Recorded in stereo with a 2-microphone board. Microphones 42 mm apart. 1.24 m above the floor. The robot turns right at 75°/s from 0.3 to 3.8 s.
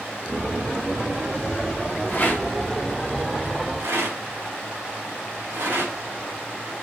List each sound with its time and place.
2.1 s a rattle: 60° left (ahead or behind), 3.5 m; by 5.9 s 65° right (ahead or behind), 3.5 m